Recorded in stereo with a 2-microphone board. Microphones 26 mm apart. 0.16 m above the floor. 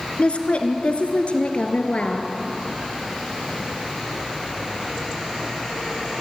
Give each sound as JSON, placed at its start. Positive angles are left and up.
{"t": 0.2, "sound": "a woman speaking", "side_deg": 55, "distance_m": 2.0}